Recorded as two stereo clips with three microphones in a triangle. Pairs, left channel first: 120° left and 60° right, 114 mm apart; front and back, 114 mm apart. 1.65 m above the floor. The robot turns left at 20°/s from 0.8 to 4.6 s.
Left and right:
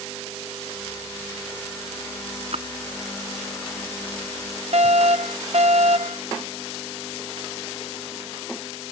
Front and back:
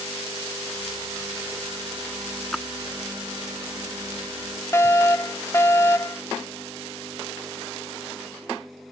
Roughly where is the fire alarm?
Ahead right.